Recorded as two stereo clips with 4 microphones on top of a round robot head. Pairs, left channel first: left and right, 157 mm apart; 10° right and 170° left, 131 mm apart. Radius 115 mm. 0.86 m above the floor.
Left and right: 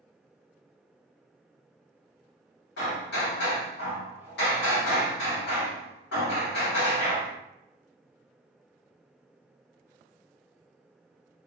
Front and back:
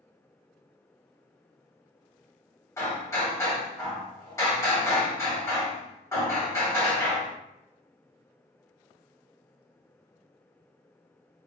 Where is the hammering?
60° left, 1.6 m.